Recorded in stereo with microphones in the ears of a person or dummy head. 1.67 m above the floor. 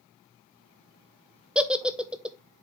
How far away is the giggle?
About 0.7 m.